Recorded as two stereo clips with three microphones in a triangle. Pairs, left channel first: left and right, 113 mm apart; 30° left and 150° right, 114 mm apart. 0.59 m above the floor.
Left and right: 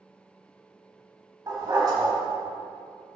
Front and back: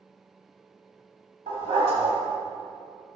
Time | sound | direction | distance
1.5 | a dog barking | 145° right | 1.8 m